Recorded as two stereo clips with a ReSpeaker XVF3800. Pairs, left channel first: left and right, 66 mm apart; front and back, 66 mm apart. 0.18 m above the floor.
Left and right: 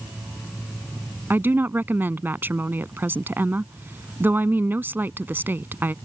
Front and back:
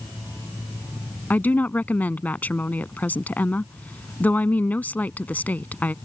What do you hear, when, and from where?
1.3 s a woman speaking: 50° right